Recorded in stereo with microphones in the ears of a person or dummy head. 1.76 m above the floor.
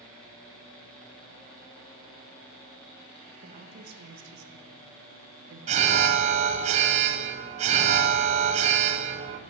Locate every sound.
3.4 s a woman speaking: 45° right (ahead or behind), 1.2 m; by 6.7 s 80° right, 2.5 m
5.7 s an alarm: 35° right (ahead or behind), 1.1 m